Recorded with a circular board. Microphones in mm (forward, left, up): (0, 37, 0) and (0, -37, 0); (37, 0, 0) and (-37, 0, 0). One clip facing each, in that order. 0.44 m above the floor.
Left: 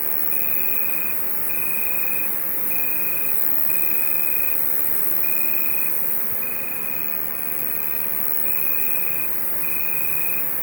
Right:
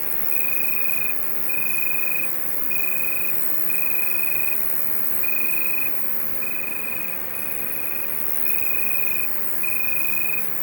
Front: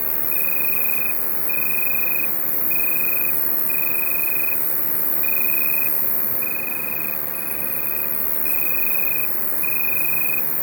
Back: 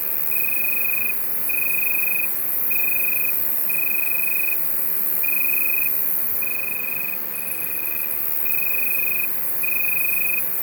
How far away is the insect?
About 0.9 m.